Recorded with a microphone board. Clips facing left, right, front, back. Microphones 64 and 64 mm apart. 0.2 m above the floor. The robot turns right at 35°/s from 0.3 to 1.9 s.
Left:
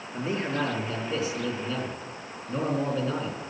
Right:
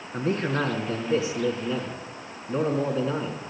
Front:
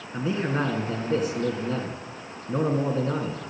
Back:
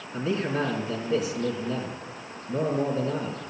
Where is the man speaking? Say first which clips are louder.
Right 3 dB, front 1 dB; 65° right, 3 m; by 3.4 s 10° right, 3 m.